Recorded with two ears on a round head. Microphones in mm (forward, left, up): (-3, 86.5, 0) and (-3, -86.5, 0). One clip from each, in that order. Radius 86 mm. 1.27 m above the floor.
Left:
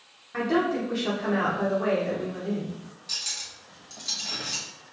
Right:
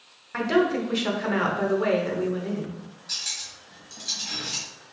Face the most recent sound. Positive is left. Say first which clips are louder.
# right 1 dB
turn(degrees=15)  # may be behind; listen again after turning